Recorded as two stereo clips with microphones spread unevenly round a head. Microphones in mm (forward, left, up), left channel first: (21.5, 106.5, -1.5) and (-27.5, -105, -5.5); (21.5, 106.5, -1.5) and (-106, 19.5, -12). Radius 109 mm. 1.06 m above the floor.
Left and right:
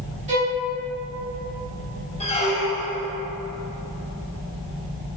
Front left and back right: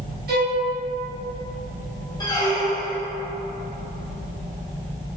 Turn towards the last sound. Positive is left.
turn(degrees=60)